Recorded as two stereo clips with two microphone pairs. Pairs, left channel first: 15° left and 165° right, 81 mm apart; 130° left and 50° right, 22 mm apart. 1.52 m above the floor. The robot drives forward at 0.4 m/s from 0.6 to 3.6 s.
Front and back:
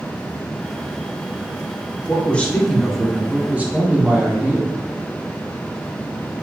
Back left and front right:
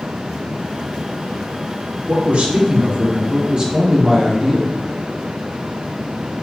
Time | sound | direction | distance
2.1 | a man speaking | 55° right | 0.9 m